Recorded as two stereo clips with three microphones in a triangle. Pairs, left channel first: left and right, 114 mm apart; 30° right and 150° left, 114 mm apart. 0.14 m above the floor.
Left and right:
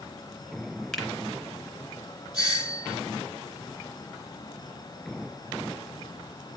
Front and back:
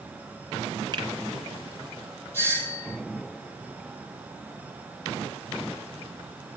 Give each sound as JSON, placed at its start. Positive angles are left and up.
{"t": 0.9, "sound": "a finger snap", "azimuth_deg": 175, "distance_m": 1.8}
{"t": 2.3, "sound": "a doorbell", "azimuth_deg": 40, "distance_m": 5.5}